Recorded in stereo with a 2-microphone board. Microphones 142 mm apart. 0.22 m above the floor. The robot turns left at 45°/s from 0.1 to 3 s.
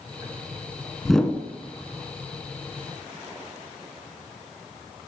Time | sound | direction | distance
1.1 | a whoosh | centre (ahead or behind) | 0.5 m